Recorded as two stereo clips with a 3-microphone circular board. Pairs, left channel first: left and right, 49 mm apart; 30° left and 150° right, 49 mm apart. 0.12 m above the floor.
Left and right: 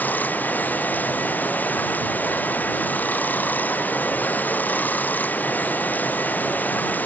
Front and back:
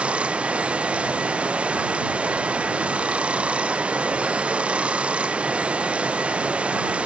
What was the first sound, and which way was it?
Running water, 145° left.